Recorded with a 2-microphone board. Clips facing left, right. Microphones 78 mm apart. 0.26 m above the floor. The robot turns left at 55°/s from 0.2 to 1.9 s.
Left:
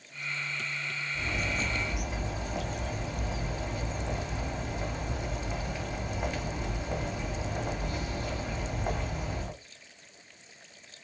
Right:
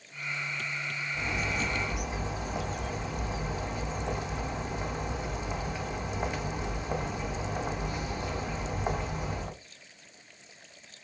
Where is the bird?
130° right, 1.7 m; by 9.5 s 170° right, 1.7 m.